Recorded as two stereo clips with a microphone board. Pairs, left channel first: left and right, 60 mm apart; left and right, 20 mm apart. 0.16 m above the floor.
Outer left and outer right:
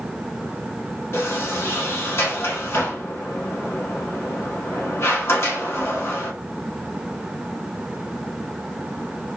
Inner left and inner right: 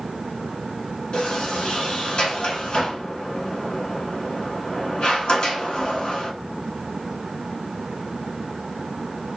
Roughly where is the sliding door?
Left.